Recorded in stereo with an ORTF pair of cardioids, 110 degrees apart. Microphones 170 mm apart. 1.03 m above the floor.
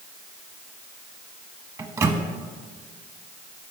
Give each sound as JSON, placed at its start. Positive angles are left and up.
{"t": 1.8, "sound": "a microwave", "azimuth_deg": -20, "distance_m": 0.9}